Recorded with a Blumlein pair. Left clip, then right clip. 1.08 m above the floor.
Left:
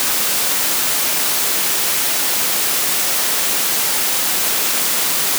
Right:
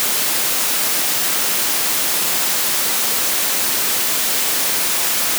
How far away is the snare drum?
I don't hear a snare drum.